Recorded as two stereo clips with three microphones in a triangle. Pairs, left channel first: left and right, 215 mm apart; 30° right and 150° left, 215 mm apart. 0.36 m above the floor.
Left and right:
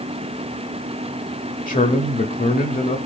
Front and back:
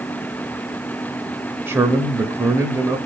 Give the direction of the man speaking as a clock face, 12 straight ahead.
9 o'clock.